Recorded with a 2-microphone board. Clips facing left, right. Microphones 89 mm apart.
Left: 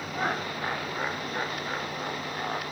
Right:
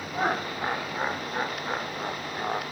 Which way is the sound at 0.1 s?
15° right (ahead or behind).